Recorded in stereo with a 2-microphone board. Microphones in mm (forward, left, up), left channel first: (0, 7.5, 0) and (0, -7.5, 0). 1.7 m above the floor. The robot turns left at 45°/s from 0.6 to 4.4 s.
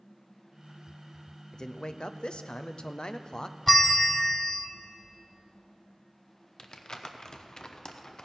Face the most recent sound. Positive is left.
turn(degrees=50)  # may be behind; listen again after turning